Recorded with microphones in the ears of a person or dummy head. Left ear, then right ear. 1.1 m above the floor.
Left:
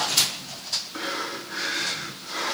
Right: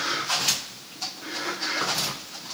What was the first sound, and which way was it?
Only background noise.